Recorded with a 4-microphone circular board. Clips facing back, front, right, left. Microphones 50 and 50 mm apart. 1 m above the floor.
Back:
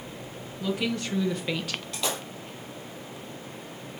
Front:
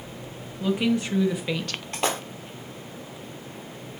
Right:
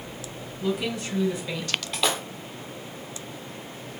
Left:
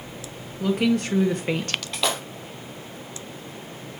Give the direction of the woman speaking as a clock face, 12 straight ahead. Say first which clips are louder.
Front 5 dB, left 6 dB; 10 o'clock.